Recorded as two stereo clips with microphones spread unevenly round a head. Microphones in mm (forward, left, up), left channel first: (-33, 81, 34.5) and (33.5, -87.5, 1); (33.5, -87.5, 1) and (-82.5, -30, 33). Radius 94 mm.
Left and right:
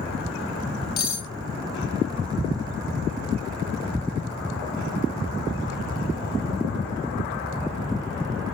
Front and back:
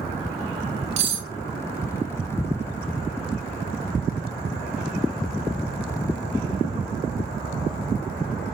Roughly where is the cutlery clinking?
Behind.